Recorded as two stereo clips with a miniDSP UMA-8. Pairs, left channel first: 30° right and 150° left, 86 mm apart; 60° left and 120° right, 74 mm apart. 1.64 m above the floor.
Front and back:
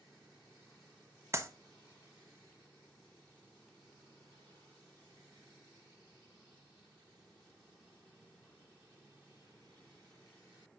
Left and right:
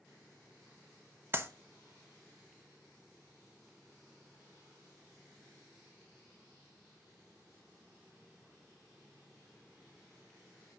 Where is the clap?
165° right, 1.0 m.